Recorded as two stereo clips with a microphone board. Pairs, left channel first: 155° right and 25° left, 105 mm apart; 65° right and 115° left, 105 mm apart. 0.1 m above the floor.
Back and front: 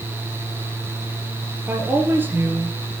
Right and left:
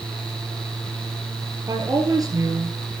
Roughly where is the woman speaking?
Left.